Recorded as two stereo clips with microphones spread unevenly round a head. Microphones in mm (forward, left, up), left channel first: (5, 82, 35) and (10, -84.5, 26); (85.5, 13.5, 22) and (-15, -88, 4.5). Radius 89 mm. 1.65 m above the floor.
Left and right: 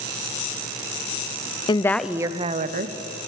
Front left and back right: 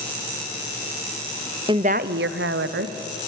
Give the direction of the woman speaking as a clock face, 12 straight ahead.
7 o'clock.